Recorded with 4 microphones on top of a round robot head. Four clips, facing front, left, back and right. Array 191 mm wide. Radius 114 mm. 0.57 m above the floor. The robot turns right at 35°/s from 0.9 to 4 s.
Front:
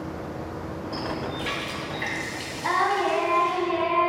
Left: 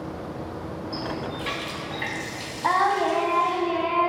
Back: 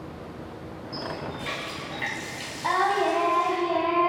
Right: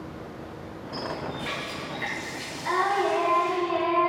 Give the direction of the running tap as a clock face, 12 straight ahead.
10 o'clock.